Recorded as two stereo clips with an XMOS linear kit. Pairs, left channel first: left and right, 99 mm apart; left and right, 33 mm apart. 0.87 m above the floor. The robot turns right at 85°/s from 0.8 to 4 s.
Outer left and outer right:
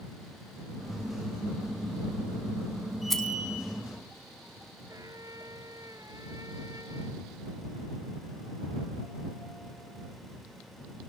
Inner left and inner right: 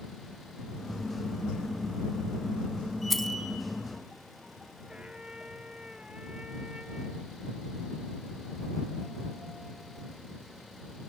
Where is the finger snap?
No finger snap in this recording.